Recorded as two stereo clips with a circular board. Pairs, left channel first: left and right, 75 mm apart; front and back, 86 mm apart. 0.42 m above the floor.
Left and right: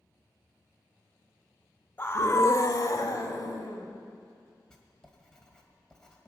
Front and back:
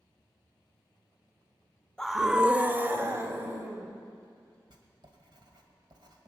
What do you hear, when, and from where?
2.0 s a scream: 75° left, 0.8 m; by 3.9 s 125° left, 2.5 m
4.7 s writing: 170° left, 1.9 m